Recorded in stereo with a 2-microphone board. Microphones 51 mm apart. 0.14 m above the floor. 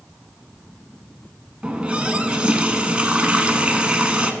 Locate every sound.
1.6 s a running tap: 20° right (ahead or behind), 0.8 m